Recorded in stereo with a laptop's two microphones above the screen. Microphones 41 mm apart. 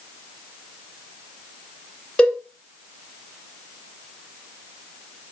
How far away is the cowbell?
About 0.9 m.